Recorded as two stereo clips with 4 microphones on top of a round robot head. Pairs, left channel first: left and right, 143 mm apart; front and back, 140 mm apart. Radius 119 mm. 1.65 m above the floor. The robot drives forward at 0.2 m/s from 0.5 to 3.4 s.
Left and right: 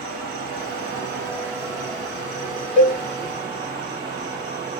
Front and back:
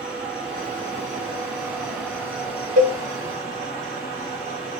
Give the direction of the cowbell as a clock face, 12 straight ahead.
6 o'clock.